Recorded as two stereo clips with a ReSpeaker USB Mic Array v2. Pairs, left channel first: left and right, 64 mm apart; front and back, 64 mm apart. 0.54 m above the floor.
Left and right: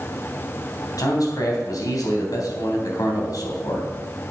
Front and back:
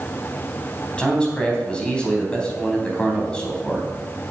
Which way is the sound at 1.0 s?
75° left.